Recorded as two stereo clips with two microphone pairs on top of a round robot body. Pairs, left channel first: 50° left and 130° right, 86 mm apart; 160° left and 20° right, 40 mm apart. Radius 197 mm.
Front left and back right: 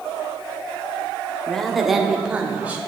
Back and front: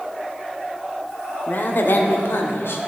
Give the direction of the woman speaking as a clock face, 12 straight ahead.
8 o'clock.